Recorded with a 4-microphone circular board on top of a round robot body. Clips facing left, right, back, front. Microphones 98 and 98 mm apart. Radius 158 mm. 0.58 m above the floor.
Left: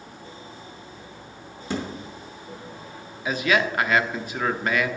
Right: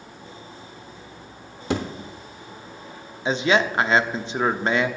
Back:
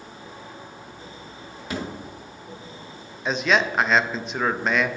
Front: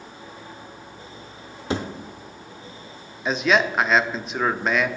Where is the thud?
65° right, 0.8 m.